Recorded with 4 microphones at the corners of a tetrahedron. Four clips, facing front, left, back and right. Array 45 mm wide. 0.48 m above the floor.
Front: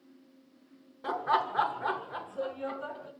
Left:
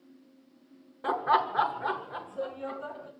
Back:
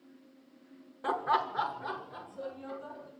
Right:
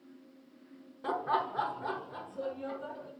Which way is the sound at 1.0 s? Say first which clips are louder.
Left 6 dB, front 1 dB; 120° left.